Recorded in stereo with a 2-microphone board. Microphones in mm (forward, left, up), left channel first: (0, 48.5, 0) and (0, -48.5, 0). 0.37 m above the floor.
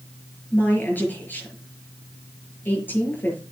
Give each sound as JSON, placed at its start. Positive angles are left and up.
{"t": 0.5, "sound": "a woman speaking", "side_deg": 20, "distance_m": 6.0}